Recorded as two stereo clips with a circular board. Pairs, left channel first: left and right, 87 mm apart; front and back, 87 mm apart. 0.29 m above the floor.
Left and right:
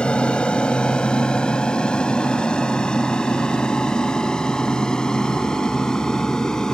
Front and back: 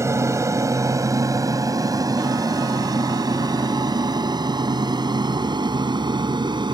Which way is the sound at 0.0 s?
160° left.